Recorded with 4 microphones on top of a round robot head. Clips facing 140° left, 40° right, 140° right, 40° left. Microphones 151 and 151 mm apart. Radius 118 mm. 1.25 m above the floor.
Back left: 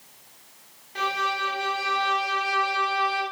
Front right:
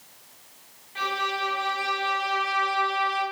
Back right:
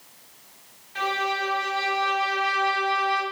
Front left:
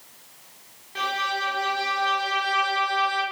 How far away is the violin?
About 4 m.